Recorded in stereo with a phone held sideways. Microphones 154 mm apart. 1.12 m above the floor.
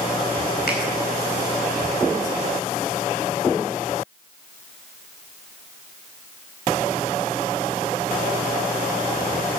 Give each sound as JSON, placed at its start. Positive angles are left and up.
{"t": 0.7, "sound": "a finger snap", "side_deg": 80, "distance_m": 4.5}